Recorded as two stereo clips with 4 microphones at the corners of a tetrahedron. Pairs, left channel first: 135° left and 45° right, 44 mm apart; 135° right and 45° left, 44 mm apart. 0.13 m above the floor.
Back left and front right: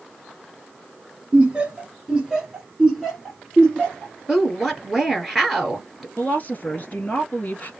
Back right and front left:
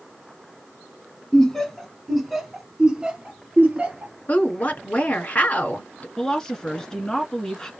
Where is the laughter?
75° right, 1.4 m; by 4.1 s 55° left, 1.5 m.